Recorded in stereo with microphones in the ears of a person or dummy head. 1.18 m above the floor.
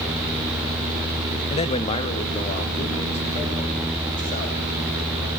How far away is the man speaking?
About 1.4 m.